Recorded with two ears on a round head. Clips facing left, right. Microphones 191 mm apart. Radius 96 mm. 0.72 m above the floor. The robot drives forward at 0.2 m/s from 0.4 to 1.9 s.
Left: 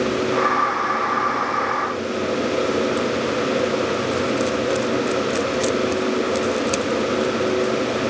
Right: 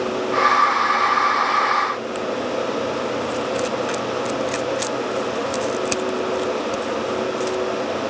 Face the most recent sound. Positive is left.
No sound to turn to.